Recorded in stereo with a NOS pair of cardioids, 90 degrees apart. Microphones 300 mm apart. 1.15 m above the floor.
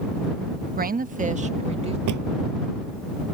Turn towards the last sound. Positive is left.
turn(degrees=-70)